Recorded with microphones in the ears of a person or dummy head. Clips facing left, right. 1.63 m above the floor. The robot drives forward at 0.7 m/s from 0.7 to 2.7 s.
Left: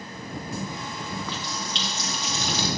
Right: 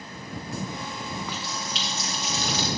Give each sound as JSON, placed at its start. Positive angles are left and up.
{"t": 1.2, "sound": "a running tap", "side_deg": -5, "distance_m": 0.6}